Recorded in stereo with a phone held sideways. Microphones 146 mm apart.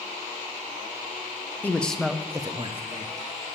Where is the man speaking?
10° left (ahead or behind), 0.8 m; by 3.3 s 55° right (ahead or behind), 0.7 m.